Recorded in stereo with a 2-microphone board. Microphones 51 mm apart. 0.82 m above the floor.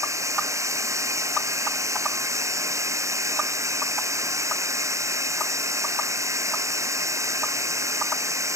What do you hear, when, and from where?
0.0 s running water: 85° right